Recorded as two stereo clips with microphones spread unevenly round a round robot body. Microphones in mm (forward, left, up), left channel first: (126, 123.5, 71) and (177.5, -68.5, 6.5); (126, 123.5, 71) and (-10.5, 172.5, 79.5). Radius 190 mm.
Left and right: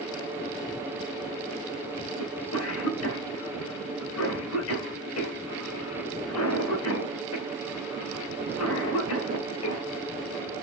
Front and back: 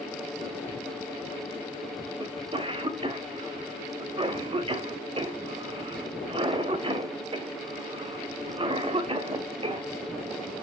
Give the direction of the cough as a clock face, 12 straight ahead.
8 o'clock.